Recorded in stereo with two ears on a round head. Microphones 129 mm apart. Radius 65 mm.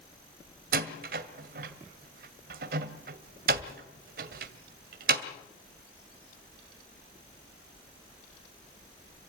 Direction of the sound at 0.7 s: 65° right (ahead or behind).